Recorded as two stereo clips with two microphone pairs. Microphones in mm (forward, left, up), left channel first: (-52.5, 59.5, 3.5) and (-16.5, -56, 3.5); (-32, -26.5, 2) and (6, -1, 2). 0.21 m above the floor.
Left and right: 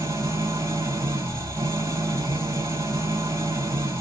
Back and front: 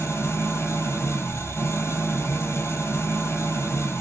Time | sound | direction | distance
0.0 | an engine running | 140° right | 1.6 m